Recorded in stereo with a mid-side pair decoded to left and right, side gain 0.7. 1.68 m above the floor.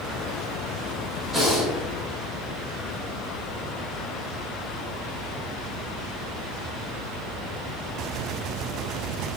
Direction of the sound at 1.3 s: 5° right.